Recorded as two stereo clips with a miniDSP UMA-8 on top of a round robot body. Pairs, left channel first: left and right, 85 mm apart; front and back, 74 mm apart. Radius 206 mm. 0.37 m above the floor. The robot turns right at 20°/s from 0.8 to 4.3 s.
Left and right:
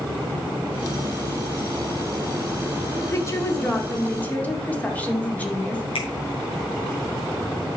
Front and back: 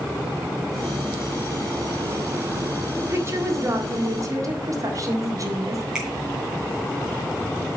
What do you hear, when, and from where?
3.0 s a woman speaking: 135° left, 2 m; by 5.8 s 160° left, 2 m
6.0 s a finger snap: 100° left, 3.5 m